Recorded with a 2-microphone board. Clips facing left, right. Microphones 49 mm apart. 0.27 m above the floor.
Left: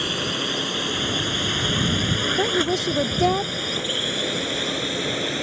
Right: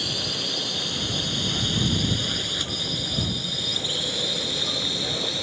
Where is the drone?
35° left (ahead or behind).